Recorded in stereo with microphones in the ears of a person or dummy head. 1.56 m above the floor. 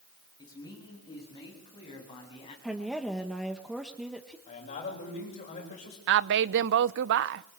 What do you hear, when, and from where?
0.4 s a man speaking: 25° left (ahead or behind), 8.5 m; by 2.5 s 35° left (ahead or behind), 9.5 m
2.6 s a woman speaking: centre (ahead or behind), 1.7 m
4.5 s a man speaking: 45° left (ahead or behind), 8.5 m
6.1 s a woman speaking: 70° right (ahead or behind), 0.8 m